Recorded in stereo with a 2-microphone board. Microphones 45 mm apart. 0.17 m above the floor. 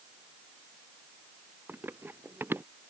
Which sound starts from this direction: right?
Running footsteps, at 1.7 s.